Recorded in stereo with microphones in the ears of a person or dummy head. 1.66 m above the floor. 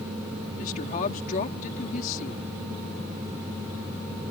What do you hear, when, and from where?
0.6 s a woman speaking: 45° left (ahead or behind)